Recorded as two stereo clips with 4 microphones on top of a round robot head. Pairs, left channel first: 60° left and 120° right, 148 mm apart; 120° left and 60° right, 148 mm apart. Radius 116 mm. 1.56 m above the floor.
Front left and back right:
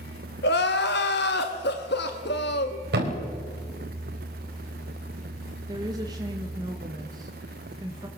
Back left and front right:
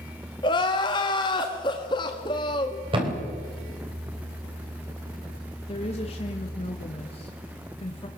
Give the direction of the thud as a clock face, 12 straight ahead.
4 o'clock.